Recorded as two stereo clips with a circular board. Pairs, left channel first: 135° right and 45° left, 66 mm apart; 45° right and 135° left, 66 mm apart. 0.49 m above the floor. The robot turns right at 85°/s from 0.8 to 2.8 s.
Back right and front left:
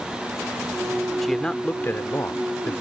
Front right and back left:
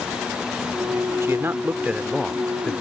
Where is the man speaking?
140° left; by 2.8 s 85° right.